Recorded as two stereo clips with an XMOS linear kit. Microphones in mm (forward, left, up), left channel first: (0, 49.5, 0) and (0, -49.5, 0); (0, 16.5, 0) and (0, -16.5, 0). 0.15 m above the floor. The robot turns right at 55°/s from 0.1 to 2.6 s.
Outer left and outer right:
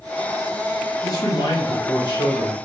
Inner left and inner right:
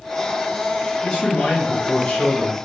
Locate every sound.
1.0 s a man speaking: 40° left, 2.5 m; by 2.5 s 125° left, 2.5 m